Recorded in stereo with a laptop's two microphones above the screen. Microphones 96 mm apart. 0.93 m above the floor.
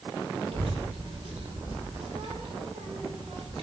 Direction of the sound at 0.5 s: 80° right.